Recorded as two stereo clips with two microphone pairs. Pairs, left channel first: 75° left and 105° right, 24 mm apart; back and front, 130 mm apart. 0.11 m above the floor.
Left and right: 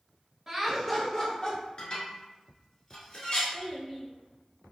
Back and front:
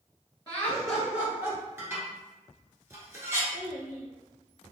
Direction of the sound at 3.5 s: 75° left.